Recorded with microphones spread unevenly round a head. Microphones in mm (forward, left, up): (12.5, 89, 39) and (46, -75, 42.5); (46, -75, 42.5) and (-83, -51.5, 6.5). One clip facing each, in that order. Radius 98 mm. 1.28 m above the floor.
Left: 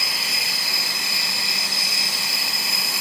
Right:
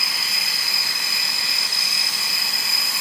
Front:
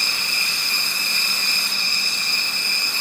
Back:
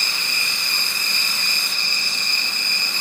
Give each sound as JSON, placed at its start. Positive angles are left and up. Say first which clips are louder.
{"t": 0.0, "sound": "an insect", "louder": "left 2 dB, even", "azimuth_deg": 130, "distance_m": 5.5}